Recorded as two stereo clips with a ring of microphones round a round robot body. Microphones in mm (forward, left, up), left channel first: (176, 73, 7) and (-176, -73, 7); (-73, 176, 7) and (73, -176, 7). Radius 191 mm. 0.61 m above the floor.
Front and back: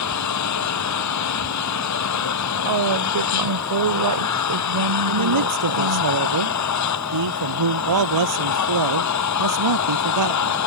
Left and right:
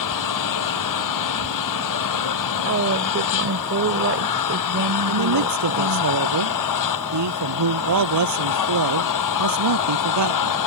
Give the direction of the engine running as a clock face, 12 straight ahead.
10 o'clock.